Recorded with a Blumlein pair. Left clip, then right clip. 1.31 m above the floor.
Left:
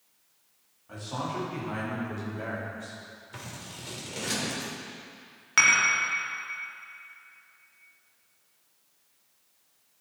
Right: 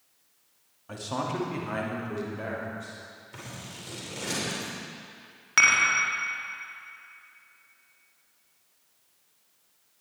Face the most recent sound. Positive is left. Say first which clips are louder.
# right 1 dB
turn(degrees=0)